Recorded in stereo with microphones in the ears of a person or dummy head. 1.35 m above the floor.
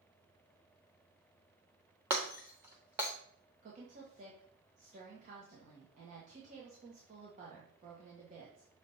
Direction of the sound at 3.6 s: 45° right (ahead or behind).